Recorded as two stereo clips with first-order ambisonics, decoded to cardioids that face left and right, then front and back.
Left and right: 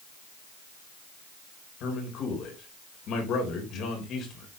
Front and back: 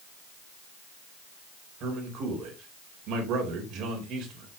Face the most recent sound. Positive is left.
turn(degrees=135)